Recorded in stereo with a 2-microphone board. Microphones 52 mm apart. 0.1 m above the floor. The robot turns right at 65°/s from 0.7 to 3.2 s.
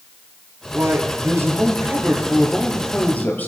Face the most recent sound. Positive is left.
turn(degrees=40)